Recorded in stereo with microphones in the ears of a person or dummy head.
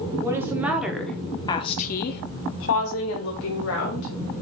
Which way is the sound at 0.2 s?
25° right (ahead or behind).